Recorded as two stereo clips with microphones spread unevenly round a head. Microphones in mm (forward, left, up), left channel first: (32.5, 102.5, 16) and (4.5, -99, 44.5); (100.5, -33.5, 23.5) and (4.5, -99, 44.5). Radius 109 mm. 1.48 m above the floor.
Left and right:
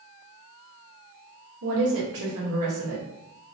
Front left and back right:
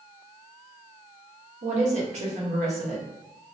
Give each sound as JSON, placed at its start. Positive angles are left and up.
{"t": 1.6, "sound": "a woman speaking", "azimuth_deg": -120, "distance_m": 1.2}